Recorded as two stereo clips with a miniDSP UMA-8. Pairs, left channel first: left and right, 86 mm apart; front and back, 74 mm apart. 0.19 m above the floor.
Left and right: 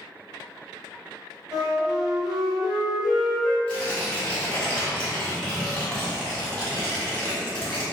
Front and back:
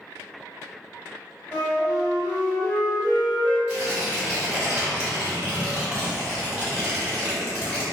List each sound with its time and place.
1.5 s a flute: 15° right, 1.3 m
3.7 s tearing paper: 140° left, 1.5 m